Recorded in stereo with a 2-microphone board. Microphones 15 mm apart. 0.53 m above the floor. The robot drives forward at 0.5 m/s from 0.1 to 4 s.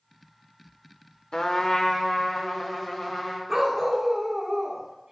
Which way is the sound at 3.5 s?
30° right (ahead or behind).